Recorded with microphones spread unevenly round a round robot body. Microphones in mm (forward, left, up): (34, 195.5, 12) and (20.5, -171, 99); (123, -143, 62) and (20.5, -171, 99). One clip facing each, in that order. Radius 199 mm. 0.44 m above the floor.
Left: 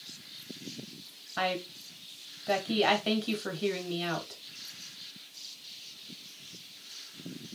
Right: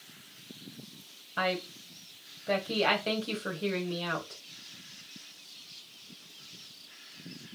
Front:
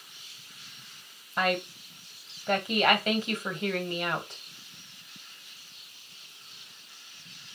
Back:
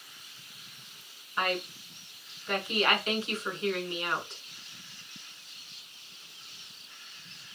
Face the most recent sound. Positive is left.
turn(degrees=20)